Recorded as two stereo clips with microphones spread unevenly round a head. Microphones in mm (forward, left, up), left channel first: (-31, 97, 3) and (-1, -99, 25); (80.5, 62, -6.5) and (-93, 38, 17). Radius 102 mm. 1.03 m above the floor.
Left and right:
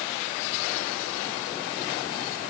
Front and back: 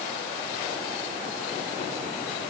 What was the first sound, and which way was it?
Only background noise.